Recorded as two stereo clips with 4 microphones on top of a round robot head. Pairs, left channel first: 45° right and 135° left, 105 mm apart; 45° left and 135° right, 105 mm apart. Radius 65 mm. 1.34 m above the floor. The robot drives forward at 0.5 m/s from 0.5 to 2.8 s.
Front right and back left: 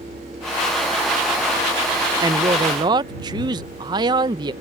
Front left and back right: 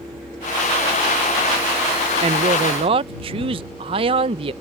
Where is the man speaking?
170° right; by 4.5 s 175° right.